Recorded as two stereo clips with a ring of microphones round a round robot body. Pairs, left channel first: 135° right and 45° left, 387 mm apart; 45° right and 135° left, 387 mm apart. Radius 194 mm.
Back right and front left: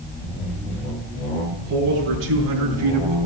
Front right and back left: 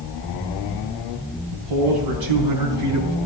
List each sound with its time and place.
1.5 s a man speaking: 110° left, 4 m; by 3.2 s 90° left, 4 m